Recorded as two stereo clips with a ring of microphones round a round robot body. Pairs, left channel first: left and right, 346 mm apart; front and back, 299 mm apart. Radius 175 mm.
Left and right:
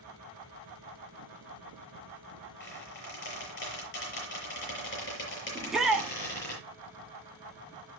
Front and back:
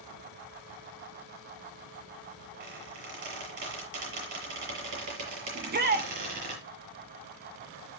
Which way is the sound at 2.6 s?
150° left.